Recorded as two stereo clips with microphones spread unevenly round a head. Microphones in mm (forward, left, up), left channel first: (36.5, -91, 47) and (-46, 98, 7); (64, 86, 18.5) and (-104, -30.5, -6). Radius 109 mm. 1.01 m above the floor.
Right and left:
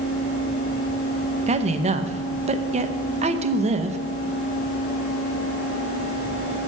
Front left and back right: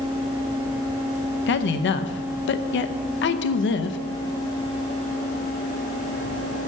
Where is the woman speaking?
65° left, 0.6 m.